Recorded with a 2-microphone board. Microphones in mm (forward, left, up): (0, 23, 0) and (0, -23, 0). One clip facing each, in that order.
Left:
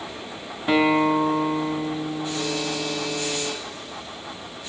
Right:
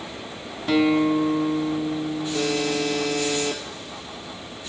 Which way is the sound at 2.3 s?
55° right (ahead or behind).